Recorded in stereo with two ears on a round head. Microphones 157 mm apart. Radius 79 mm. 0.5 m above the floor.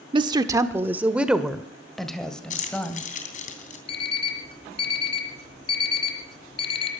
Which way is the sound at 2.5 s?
45° left (ahead or behind).